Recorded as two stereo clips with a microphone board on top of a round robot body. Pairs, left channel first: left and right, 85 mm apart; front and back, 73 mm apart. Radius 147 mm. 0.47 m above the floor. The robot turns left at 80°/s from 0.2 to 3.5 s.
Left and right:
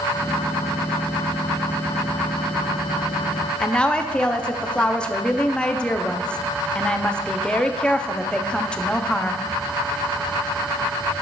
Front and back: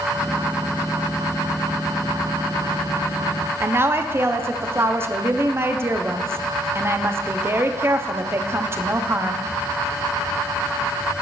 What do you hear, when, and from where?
3.6 s a woman speaking: 160° left, 0.8 m